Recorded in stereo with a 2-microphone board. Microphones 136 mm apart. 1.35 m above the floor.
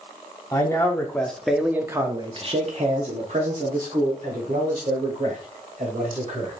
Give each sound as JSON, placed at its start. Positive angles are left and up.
{"t": 0.5, "sound": "a man speaking", "side_deg": 20, "distance_m": 1.1}